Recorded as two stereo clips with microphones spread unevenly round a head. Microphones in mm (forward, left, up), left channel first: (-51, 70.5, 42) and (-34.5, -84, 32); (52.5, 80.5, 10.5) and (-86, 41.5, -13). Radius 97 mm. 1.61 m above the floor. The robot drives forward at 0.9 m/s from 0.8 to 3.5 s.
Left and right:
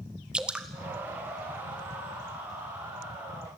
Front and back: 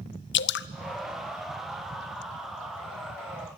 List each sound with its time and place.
0.3 s dripping: straight ahead, 0.6 m